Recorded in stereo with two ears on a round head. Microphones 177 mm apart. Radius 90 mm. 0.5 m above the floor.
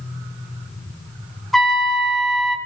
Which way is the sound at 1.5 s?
Centre (ahead or behind).